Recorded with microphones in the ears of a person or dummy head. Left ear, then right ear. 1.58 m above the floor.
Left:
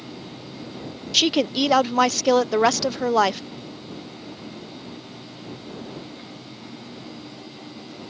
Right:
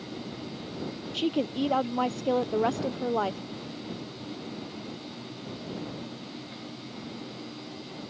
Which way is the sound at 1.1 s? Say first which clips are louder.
Left 10 dB; 50° left (ahead or behind).